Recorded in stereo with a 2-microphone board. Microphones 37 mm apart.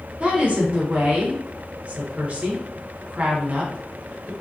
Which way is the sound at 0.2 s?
35° right (ahead or behind).